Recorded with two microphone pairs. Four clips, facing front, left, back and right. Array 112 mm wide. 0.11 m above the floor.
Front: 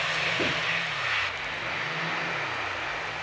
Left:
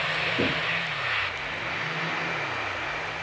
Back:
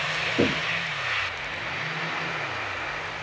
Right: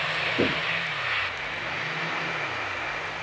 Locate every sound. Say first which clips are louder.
0.4 s knocking: right 3 dB, back 9 dB; 175° right, 4 m